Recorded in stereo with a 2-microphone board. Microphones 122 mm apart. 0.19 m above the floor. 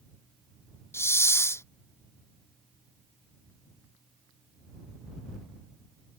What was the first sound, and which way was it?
A hiss, 20° left (ahead or behind).